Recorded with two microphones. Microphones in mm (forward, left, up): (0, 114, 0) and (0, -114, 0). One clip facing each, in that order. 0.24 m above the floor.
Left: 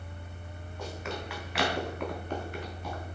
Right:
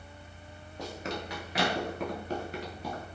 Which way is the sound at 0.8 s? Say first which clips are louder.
Right 1 dB; 40° right (ahead or behind).